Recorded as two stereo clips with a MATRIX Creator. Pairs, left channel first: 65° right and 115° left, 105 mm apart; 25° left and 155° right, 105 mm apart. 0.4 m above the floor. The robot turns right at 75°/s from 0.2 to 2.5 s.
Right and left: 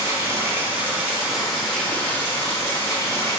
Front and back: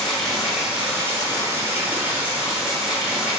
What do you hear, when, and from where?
0.0 s running water: 100° left, 0.9 m; by 3.4 s 85° right, 0.9 m